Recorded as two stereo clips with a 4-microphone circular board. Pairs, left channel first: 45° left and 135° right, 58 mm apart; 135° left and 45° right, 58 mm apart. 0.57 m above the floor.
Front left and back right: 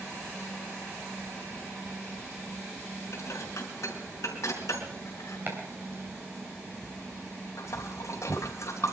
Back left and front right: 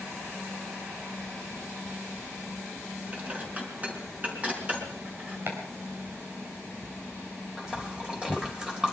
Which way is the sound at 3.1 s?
15° left.